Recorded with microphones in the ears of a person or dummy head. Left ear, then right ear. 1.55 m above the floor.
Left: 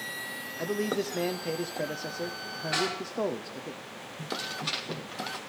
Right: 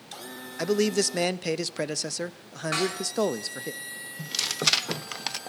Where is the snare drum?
45° right (ahead or behind), 8.5 m.